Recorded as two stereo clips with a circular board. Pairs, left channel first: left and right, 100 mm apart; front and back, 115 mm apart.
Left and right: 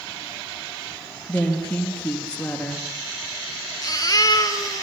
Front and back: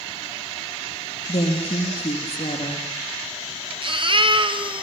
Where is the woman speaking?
15° left, 4.5 m.